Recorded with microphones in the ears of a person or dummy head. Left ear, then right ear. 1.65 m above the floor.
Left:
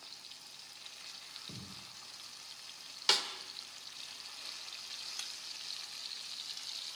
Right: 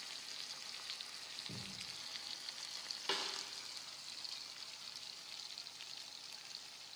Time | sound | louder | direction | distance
1.5 | a thud | right 1 dB | 30° left (ahead or behind) | 9.5 m
3.1 | a snare drum | left 10 dB | 50° left (ahead or behind) | 2.5 m